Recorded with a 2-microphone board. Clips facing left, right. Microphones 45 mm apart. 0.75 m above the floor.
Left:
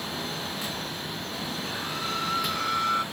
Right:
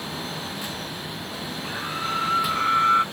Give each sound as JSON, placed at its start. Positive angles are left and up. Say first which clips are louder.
{"t": 1.6, "sound": "a scream", "louder": "right 6 dB", "side_deg": -20}